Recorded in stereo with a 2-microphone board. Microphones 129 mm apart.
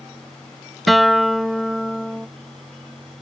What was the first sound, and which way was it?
A guitar, centre (ahead or behind).